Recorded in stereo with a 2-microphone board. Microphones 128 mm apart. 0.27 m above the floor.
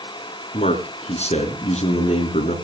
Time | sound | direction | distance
0.5 | a man speaking | 60° left (ahead or behind) | 4 m